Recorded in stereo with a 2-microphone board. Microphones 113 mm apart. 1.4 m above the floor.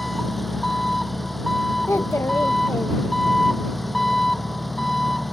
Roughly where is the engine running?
Centre.